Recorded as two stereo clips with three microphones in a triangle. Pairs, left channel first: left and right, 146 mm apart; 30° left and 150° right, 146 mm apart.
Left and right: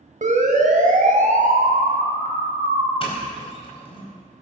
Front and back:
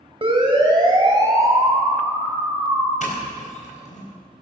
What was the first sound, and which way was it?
A siren, 105° right.